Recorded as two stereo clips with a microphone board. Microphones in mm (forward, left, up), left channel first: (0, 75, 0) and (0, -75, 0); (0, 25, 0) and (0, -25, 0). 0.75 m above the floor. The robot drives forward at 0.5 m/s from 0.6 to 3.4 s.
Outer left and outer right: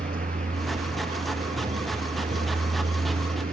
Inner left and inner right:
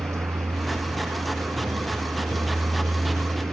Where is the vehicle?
70° right (ahead or behind); by 3.5 s 75° right (ahead or behind).